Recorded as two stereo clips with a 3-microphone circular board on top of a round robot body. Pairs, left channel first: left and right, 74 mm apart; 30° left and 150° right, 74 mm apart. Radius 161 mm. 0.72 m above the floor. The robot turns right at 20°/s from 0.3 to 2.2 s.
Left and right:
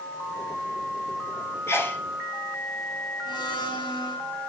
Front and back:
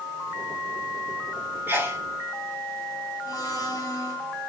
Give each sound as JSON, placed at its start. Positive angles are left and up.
{"t": 1.7, "sound": "a sneeze", "azimuth_deg": 145, "distance_m": 3.5}
{"t": 3.2, "sound": "a blender", "azimuth_deg": 75, "distance_m": 6.5}